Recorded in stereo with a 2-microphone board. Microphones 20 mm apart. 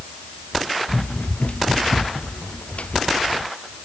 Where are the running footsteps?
85° left; by 3.5 s 80° left.